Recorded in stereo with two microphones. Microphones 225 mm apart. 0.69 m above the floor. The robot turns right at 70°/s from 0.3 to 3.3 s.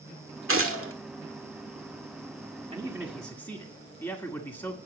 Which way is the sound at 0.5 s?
105° right.